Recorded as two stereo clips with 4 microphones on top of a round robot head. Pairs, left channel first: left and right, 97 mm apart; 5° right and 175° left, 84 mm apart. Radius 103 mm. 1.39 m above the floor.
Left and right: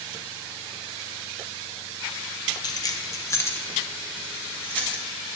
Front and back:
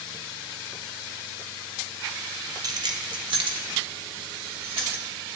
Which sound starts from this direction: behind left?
Keys jangling, at 2.6 s.